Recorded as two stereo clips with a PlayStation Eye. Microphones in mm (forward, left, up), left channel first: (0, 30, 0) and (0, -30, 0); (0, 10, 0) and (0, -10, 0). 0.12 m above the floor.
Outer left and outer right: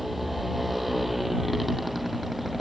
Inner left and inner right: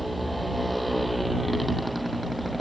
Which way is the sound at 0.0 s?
Centre (ahead or behind).